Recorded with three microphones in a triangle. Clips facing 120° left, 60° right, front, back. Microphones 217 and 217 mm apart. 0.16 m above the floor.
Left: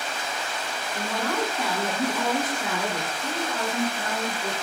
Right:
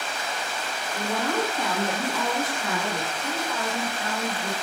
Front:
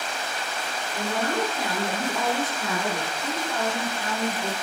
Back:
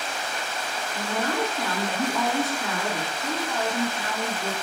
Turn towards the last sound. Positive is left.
turn(degrees=90)